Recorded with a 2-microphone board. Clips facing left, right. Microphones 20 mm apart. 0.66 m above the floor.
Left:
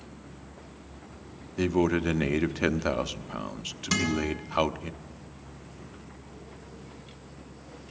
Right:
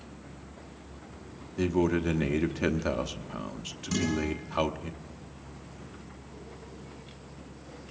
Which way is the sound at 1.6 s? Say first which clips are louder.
Left 1 dB; 20° left (ahead or behind).